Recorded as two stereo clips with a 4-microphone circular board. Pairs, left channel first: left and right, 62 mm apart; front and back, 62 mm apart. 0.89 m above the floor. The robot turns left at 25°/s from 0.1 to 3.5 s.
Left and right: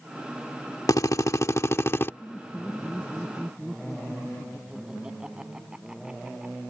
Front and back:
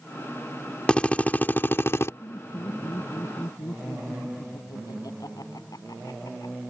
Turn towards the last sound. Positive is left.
turn(degrees=-15)